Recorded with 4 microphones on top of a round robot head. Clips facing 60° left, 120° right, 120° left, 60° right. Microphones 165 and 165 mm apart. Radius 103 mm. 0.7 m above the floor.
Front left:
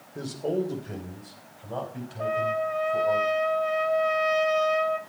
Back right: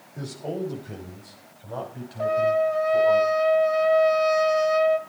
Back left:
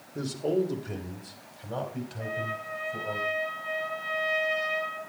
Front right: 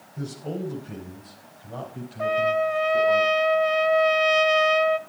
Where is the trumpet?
65° right, 1.6 m.